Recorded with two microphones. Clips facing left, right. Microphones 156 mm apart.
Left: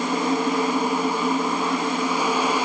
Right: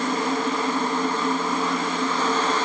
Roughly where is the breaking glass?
No breaking glass in this recording.